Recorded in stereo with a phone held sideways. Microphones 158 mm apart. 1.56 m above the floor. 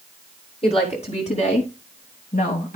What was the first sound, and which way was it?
A woman speaking, 40° left (ahead or behind).